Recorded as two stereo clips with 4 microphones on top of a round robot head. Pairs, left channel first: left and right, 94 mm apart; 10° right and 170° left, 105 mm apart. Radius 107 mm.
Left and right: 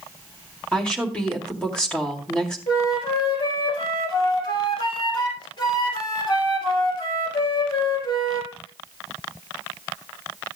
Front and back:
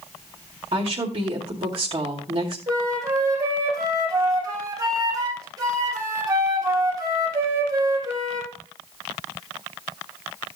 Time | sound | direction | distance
0.7 | a woman speaking | 170° left | 2.5 m
2.7 | a flute | 120° left | 5.5 m